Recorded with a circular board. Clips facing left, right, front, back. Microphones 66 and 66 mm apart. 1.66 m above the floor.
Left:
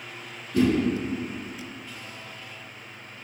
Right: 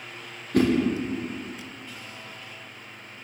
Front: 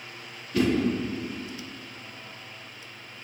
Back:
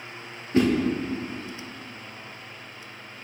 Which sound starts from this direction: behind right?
A whoosh, at 0.5 s.